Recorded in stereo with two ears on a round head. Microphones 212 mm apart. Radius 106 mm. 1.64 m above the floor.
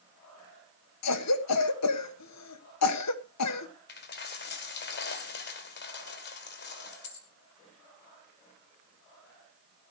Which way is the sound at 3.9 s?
45° left (ahead or behind).